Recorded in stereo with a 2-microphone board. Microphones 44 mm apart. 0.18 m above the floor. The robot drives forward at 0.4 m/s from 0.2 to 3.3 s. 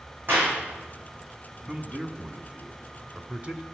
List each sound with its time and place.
0.3 s a clap: 50° right (ahead or behind), 7 m
1.7 s a man speaking: 30° right (ahead or behind), 1.1 m